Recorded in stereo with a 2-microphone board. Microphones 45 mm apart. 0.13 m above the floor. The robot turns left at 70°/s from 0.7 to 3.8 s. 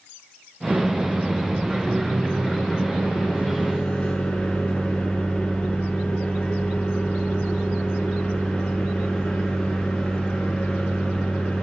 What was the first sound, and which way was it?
A microwave, 110° right.